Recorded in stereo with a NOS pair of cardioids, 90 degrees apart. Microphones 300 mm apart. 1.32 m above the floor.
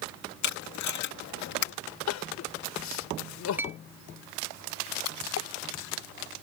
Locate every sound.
0.4 s tape being pulled: 65° left
2.1 s crying: 65° left
3.6 s a clink: 5° right
5.0 s a splash: 60° left